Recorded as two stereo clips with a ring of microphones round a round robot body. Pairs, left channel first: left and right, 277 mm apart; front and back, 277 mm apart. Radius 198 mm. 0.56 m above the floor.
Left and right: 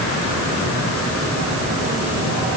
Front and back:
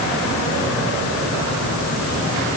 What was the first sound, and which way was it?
Only background noise.